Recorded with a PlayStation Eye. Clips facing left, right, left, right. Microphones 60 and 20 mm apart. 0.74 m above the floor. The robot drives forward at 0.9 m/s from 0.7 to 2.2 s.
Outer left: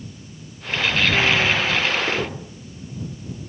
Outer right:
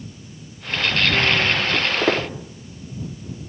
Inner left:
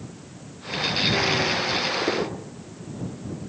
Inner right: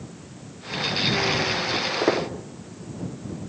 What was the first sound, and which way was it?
Footsteps, 50° right (ahead or behind).